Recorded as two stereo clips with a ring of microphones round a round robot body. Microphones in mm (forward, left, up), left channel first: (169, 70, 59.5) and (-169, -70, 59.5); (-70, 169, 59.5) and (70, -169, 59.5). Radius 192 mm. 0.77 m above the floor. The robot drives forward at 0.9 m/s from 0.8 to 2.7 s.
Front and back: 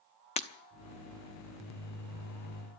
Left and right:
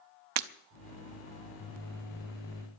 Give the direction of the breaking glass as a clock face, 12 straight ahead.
2 o'clock.